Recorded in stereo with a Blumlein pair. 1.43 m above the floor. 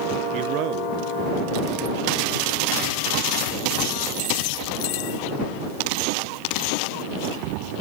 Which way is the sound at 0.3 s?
40° right.